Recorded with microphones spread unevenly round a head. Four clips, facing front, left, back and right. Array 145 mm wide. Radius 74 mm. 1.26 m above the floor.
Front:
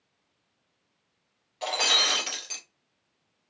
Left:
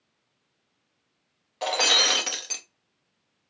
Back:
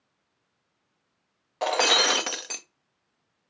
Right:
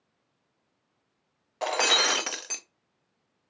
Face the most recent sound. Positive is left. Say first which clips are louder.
# even, back 6 dB
turn(degrees=180)